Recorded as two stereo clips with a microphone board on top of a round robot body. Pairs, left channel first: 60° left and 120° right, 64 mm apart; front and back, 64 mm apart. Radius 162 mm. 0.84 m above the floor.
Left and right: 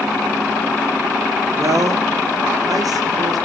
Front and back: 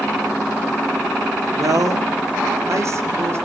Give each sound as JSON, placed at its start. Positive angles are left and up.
{"t": 1.6, "sound": "a man speaking", "azimuth_deg": -155, "distance_m": 3.0}